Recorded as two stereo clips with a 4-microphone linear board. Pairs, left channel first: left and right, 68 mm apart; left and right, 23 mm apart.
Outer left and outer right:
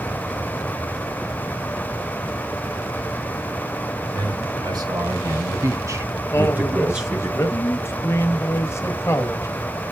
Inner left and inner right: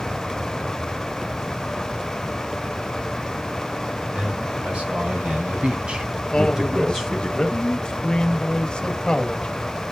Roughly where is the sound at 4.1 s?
Right.